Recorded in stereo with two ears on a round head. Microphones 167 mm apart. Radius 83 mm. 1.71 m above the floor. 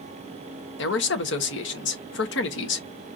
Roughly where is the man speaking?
Left.